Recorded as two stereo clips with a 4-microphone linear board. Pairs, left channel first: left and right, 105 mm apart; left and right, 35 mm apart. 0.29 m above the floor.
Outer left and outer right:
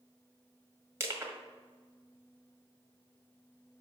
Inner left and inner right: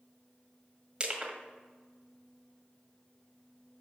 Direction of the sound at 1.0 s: 25° right (ahead or behind).